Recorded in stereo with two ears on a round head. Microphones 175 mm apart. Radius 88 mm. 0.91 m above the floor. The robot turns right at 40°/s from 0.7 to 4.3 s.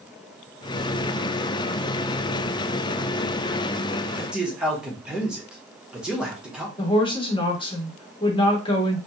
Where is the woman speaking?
25° left (ahead or behind), 1.0 m.